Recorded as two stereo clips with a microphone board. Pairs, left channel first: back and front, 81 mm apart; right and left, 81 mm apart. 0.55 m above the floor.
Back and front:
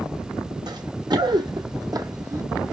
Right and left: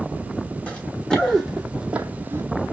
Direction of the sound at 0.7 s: 20° right.